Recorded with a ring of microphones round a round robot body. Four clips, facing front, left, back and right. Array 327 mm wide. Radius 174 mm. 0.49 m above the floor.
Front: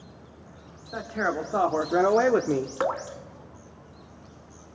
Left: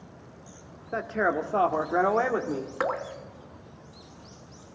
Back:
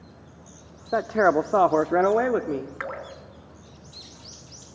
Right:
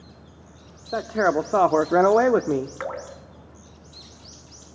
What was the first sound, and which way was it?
A man speaking, 160° right.